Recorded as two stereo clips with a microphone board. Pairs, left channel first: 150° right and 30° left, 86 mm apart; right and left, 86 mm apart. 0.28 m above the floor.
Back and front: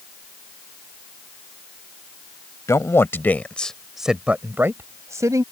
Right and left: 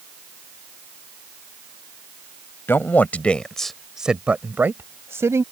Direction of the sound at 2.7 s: 135° right.